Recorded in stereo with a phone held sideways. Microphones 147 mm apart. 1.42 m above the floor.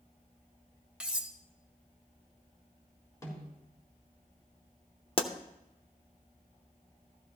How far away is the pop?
About 0.8 m.